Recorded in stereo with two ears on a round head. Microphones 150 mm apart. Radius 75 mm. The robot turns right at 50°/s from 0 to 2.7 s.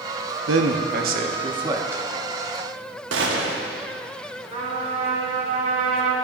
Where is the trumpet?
40° right (ahead or behind), 1.5 m.